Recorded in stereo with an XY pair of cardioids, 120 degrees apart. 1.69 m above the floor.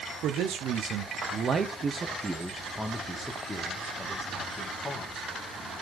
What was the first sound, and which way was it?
A man speaking, 70° right.